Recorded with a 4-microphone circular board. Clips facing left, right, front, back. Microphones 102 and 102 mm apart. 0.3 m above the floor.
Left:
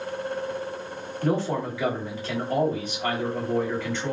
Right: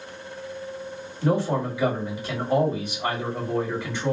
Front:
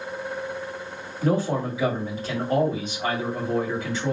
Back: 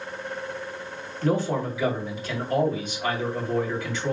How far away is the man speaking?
About 1.9 m.